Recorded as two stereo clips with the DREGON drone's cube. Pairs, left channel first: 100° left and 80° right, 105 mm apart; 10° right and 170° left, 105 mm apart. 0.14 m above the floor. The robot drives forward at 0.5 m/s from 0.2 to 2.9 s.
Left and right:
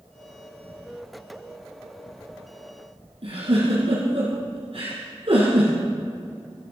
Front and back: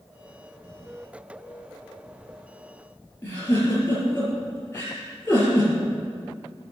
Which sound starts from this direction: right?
A giggle, at 3.2 s.